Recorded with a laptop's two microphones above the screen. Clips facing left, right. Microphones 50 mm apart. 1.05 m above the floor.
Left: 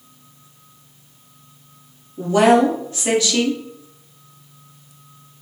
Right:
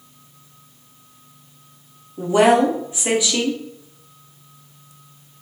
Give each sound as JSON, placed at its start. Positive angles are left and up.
{"t": 2.2, "sound": "a woman speaking", "side_deg": -15, "distance_m": 0.6}